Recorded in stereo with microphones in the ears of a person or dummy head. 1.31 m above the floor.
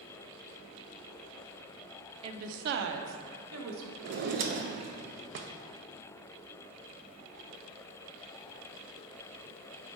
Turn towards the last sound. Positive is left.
turn(degrees=-45)  # may be behind; listen again after turning